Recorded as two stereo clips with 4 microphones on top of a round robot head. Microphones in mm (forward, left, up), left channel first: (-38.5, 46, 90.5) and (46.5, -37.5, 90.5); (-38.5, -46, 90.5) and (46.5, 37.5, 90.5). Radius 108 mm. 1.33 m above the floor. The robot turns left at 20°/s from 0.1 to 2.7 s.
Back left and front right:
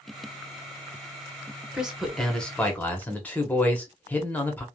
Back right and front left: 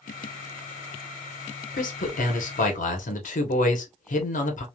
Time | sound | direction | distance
1.7 | a man speaking | 125° right | 1.1 m